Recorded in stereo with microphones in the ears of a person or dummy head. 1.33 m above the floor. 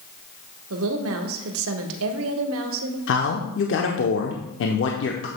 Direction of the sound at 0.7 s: 75° right (ahead or behind).